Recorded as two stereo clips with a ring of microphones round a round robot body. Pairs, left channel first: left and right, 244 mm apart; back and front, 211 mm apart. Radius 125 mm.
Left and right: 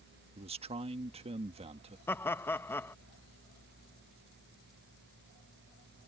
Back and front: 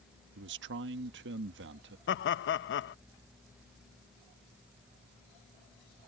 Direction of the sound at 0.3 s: 25° right.